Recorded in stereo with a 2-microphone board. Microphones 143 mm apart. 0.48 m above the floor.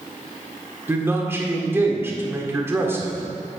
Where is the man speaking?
15° right (ahead or behind), 1.5 m.